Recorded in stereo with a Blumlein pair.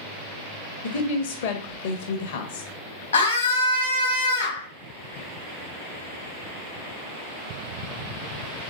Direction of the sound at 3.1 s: 70° left.